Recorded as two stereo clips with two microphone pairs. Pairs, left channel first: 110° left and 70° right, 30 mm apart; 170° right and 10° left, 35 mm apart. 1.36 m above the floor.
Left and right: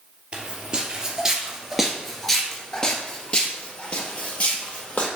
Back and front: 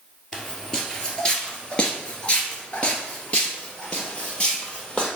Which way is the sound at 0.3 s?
100° right.